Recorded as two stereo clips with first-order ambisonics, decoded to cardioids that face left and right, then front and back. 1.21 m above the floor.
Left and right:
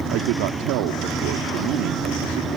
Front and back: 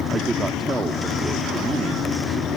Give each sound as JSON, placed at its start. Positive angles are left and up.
{"t": 0.1, "sound": "a man speaking", "azimuth_deg": -105}